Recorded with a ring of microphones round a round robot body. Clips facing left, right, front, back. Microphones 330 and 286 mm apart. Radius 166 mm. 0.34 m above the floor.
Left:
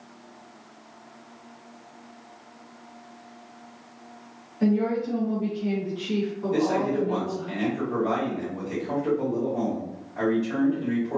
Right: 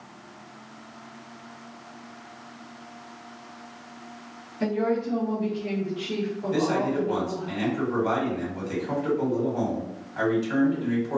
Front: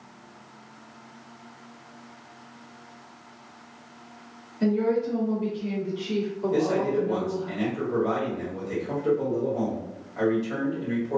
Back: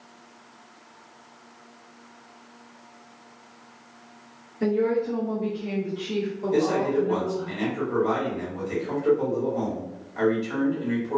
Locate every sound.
4.6 s a woman speaking: 70° right, 1.3 m; by 7.5 s 90° left, 1.6 m
6.5 s a man speaking: 130° right, 1.3 m